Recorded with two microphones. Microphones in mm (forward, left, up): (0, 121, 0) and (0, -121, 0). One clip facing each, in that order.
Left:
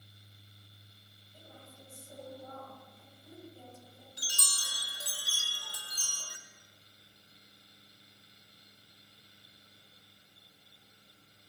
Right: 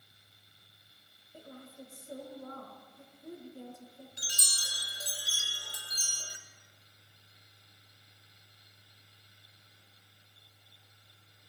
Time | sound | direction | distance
1.3 | a woman speaking | 65° right (ahead or behind) | 2.5 m
4.2 | a chime | 20° right (ahead or behind) | 2.0 m